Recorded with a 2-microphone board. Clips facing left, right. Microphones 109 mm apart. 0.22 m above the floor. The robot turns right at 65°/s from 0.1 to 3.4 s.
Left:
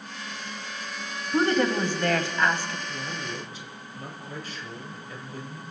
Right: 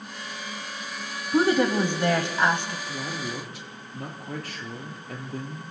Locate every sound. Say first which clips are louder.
1.3 s a woman speaking: right 2 dB; 5° right (ahead or behind), 1.0 m; by 2.8 s 20° right (ahead or behind), 1.0 m
2.9 s a man speaking: right 2 dB; 140° right, 3.5 m; by 5.6 s 105° right, 3.5 m